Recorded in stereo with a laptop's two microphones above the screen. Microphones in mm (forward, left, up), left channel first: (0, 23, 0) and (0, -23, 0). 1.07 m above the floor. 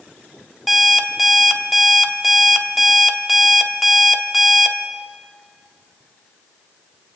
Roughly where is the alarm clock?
Centre.